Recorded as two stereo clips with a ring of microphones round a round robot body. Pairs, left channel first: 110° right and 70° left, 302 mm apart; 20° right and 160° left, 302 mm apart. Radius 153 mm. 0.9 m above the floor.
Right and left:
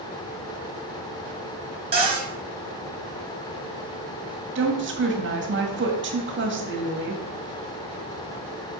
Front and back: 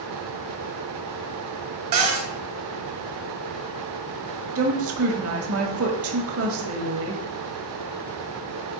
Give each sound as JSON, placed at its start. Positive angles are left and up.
{"t": 1.9, "sound": "a cupboard door", "azimuth_deg": 140, "distance_m": 3.5}
{"t": 4.5, "sound": "a woman speaking", "azimuth_deg": 115, "distance_m": 1.8}